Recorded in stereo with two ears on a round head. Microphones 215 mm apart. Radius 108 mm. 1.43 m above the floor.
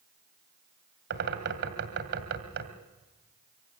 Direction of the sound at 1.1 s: 50° right (ahead or behind).